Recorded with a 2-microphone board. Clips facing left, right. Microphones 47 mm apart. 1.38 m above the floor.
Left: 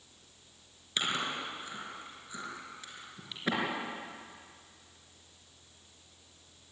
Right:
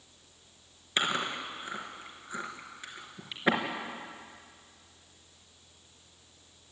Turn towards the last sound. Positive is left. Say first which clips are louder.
# right 3 dB
turn(degrees=-30)  # may be behind; listen again after turning